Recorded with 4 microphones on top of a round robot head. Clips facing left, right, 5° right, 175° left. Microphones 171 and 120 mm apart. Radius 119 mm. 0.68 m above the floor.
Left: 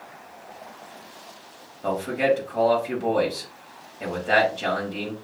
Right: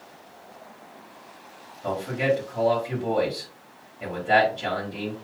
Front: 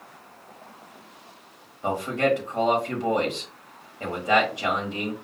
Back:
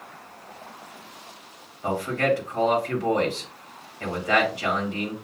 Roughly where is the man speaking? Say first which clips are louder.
Left 2 dB, even; ahead left.